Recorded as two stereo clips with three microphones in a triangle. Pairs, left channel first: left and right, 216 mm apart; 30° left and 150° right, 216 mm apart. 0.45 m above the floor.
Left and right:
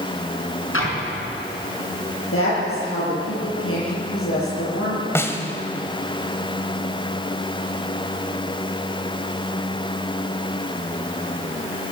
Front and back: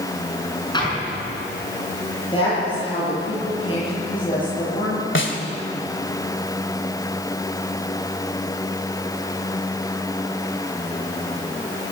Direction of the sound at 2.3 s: 95° left.